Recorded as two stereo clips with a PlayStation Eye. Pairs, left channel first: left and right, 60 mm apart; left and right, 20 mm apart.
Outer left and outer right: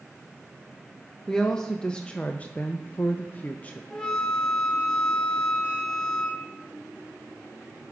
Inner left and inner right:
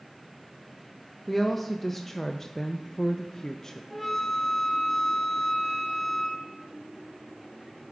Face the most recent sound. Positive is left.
turn(degrees=15)  # may be behind; listen again after turning